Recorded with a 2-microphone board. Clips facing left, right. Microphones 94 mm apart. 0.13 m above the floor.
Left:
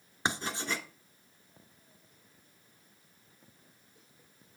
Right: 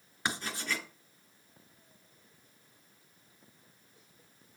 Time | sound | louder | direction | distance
0.2 | writing | left 2 dB | 25° left (ahead or behind) | 1.2 m